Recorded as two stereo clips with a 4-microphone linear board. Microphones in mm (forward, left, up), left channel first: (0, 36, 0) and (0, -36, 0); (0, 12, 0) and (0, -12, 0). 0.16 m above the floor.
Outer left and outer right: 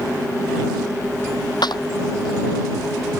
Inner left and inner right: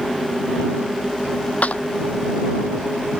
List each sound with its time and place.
1.6 s a clap: 75° left (ahead or behind)